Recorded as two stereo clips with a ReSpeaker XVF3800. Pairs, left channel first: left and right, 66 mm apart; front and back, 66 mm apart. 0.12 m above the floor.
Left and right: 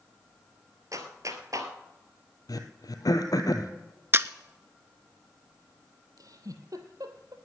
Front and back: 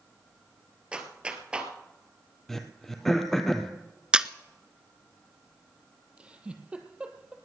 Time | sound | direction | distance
0.9 | a clap | 105° right | 1.8 m
2.5 | throat clearing | 85° left | 1.5 m
4.1 | a camera shutter | 110° right | 0.6 m
6.2 | a giggle | 105° right | 1.7 m